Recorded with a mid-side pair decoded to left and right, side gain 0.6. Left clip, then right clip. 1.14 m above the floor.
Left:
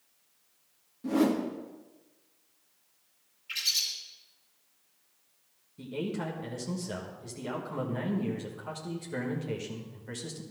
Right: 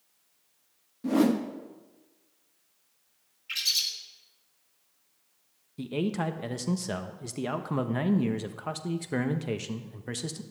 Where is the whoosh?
25° right, 1.6 m.